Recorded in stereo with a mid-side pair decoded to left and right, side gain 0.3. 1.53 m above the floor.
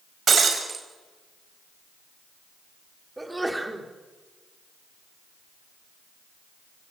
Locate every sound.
0.3 s breaking glass: 65° right, 5 m
3.2 s a sneeze: 20° right, 4.5 m